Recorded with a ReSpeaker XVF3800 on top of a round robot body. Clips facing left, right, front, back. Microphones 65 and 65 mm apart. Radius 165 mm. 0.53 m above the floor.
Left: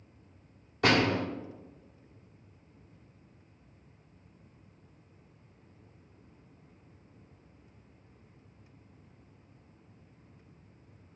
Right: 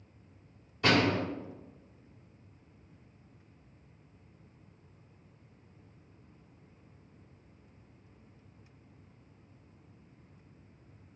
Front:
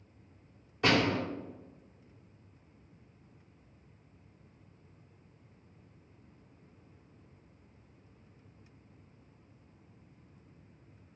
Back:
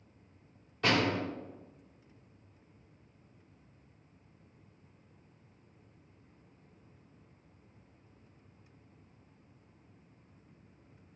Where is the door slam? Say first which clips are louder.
Left 1 dB, front 2 dB; 80° left, 1.7 m.